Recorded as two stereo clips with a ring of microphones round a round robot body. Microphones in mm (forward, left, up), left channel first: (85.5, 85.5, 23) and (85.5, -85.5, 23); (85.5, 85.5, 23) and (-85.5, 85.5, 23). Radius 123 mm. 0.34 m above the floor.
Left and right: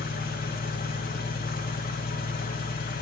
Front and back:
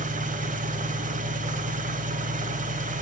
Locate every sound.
0.0 s an engine running: 135° left, 0.9 m